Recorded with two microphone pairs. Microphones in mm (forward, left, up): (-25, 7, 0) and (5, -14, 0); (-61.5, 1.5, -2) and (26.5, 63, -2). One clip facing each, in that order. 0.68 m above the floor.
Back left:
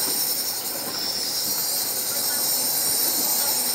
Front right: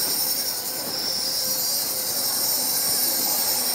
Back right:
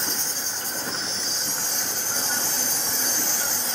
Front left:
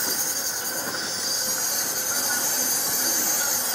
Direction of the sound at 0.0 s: 110° left.